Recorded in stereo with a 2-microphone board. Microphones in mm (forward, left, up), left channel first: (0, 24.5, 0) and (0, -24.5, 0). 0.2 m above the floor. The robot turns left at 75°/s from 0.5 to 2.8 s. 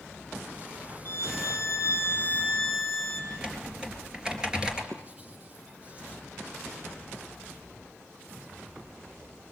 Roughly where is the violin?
Behind left.